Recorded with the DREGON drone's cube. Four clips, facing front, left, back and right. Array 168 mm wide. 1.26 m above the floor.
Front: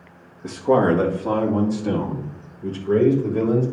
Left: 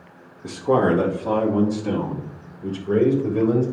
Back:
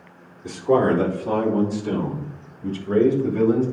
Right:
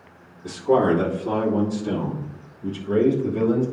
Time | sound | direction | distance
0.4 | a man speaking | 30° left | 2 m